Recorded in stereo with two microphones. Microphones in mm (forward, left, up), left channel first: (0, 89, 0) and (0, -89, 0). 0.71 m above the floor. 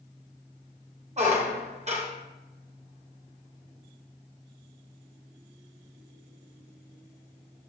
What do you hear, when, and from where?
1.2 s a squeak: 35° right (ahead or behind), 0.6 m